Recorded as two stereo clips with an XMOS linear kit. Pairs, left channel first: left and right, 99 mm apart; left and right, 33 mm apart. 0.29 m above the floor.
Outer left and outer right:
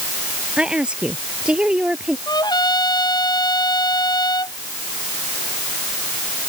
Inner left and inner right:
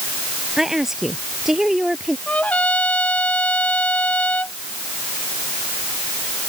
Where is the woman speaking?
10° right (ahead or behind).